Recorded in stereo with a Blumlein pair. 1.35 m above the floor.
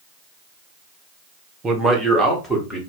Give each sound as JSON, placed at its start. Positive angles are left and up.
{"t": 1.6, "sound": "a man speaking", "azimuth_deg": -20, "distance_m": 0.8}